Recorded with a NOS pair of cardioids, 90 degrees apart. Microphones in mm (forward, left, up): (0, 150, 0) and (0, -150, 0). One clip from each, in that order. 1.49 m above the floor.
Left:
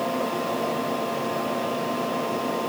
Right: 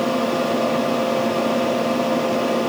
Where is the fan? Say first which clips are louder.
Right 6 dB; 45° right, 0.7 m.